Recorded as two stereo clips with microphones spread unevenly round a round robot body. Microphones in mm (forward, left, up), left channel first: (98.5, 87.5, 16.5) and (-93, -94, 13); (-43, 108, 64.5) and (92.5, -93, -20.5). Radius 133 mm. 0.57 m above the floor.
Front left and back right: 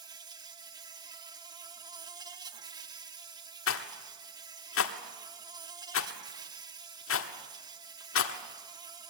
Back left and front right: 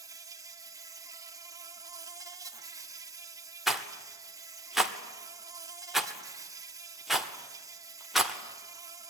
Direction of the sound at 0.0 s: 75° right.